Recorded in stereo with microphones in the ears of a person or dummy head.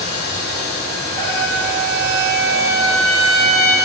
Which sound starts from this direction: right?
A trumpet, at 1.2 s.